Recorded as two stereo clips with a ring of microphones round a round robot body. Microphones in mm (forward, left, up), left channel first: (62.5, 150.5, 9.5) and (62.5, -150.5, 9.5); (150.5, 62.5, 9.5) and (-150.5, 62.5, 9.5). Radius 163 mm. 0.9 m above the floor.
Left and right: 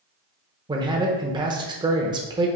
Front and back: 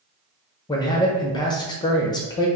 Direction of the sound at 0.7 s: 45° right.